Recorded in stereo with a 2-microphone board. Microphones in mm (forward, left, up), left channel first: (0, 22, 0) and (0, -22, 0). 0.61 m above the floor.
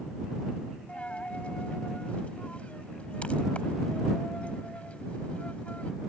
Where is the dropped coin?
30° left (ahead or behind).